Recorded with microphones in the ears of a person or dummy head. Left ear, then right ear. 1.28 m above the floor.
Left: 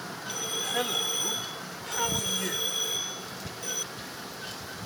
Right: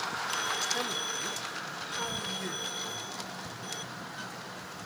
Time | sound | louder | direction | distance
0.3 | a man speaking | left 3 dB | 25° left (ahead or behind) | ?